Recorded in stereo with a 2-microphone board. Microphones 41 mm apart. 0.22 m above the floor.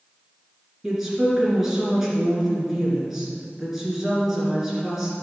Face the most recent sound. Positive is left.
turn(degrees=-10)  # may be behind; listen again after turning